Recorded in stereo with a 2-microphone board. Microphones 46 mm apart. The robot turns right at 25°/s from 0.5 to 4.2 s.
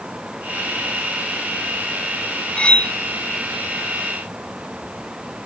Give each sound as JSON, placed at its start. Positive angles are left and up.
{"t": 2.6, "sound": "cutlery clinking", "side_deg": 25, "distance_m": 0.6}